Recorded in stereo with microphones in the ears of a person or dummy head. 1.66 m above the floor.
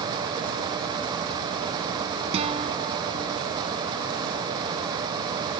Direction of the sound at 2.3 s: 30° right (ahead or behind).